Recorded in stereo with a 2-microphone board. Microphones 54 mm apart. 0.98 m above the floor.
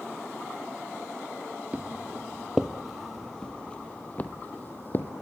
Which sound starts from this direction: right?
Footsteps, at 1.7 s.